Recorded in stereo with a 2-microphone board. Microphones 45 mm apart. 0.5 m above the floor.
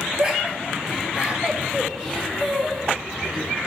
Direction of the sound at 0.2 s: 20° right (ahead or behind).